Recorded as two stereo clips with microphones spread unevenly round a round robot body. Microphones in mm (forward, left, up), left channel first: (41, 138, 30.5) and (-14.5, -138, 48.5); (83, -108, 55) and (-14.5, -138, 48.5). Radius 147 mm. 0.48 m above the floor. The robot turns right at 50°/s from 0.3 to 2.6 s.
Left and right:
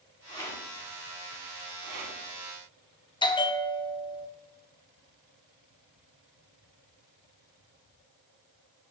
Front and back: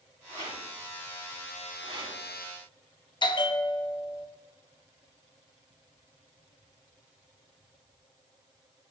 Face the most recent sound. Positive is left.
turn(degrees=20)